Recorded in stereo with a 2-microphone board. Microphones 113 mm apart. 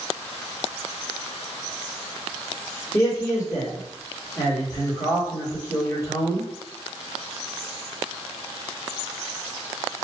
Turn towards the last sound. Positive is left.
turn(degrees=25)  # may be behind; listen again after turning